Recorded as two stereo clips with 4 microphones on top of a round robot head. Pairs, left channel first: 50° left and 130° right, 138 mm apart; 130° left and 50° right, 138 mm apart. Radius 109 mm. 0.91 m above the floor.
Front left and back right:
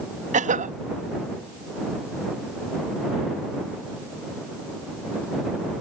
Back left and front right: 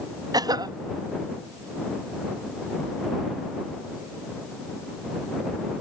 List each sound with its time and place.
0.3 s a cough: 110° right